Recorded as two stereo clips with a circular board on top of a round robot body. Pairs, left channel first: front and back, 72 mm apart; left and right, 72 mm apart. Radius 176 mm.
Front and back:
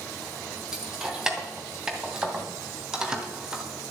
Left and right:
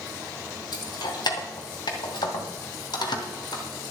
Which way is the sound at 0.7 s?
95° left.